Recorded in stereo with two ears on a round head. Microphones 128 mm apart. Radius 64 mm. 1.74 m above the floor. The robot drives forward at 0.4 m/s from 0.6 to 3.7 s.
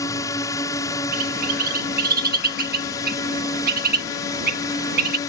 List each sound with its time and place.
0.0 s a drone: 20° left (ahead or behind); by 5.3 s 25° left (ahead or behind)
1.1 s a bird: 60° right (ahead or behind); by 5.2 s 65° right (ahead or behind)